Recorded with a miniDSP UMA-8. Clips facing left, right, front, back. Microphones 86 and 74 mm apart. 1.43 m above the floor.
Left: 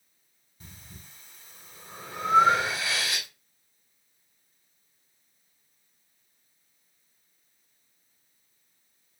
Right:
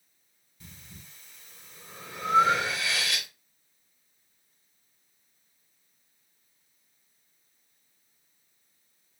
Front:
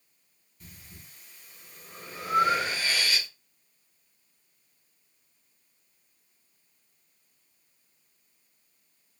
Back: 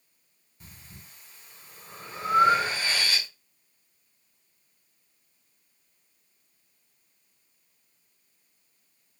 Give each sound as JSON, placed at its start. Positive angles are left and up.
{"t": 0.6, "sound": "breathing", "azimuth_deg": 135, "distance_m": 1.3}